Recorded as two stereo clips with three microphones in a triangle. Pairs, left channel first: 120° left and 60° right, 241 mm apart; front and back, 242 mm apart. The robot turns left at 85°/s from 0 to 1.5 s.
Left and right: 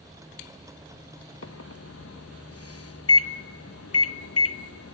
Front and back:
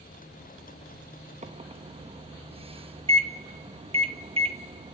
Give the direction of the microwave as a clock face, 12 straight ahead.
8 o'clock.